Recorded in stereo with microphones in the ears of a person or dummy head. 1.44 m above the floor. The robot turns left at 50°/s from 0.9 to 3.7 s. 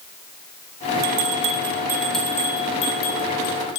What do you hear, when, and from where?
1.0 s a bell: 50° right (ahead or behind), 1.4 m; by 3.8 s 80° left, 1.4 m